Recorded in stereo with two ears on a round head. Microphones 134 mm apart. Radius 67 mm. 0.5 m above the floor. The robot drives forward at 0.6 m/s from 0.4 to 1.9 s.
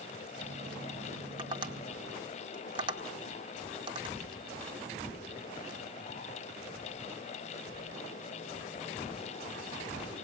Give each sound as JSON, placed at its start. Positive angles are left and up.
{"t": 1.4, "sound": "tapping", "side_deg": -30, "distance_m": 1.6}